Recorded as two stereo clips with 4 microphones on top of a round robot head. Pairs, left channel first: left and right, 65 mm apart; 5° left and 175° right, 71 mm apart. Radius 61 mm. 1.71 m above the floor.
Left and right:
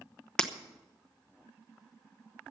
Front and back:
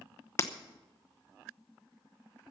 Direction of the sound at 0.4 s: 15° left.